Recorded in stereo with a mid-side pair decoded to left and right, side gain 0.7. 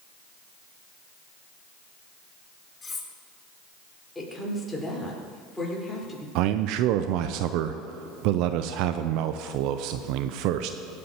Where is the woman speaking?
10° left, 4.5 m.